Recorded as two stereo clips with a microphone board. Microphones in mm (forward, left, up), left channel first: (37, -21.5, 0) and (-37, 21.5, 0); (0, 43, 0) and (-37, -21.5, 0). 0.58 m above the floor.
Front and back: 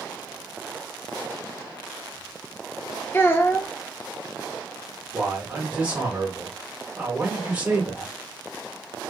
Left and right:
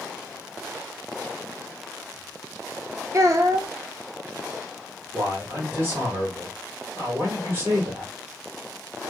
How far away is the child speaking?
About 0.6 m.